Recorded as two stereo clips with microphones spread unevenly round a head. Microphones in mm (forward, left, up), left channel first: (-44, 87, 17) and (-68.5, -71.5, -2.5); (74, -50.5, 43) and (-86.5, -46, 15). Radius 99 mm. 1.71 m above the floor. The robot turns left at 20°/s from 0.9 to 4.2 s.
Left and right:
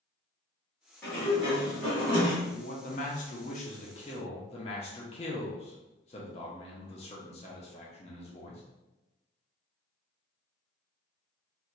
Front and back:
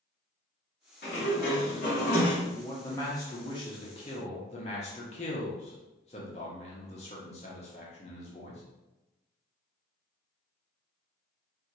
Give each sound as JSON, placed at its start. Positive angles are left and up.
{"t": 1.0, "sound": "a sliding door", "azimuth_deg": 5, "distance_m": 1.7}
{"t": 2.4, "sound": "a man speaking", "azimuth_deg": 75, "distance_m": 0.8}